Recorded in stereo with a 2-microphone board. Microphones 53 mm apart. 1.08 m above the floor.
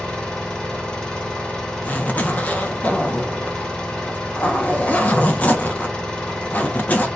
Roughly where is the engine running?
Centre.